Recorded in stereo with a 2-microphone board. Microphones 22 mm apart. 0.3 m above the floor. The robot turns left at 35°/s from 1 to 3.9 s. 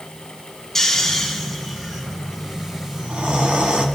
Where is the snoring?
15° left (ahead or behind), 2.5 m; by 3.9 s 65° right (ahead or behind), 2.5 m.